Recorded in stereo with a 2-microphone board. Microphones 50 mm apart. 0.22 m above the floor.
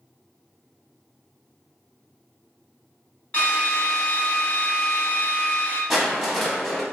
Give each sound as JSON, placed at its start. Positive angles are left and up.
{"t": 3.3, "sound": "a drill", "side_deg": 30, "distance_m": 1.6}
{"t": 5.9, "sound": "crushing", "side_deg": 0, "distance_m": 0.9}